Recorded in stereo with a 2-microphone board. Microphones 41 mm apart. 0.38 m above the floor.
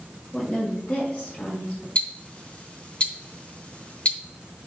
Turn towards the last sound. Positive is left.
turn(degrees=30)  # may be behind; listen again after turning